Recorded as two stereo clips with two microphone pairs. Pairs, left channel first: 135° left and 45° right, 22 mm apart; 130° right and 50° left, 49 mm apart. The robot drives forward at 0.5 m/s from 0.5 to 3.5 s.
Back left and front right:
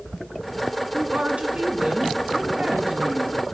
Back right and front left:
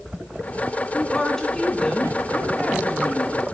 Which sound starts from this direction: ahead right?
A woman speaking, at 0.9 s.